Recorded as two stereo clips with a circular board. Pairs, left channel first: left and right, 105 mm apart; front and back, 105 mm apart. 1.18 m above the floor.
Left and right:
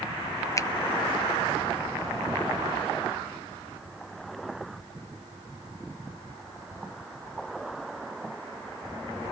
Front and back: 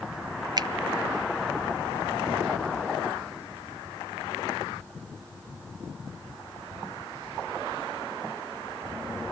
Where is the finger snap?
140° left, 0.6 m.